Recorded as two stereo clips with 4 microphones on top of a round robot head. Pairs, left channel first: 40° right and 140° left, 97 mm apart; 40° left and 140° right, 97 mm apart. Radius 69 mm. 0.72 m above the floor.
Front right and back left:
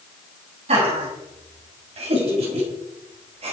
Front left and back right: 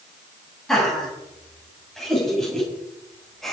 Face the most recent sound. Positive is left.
turn(degrees=125)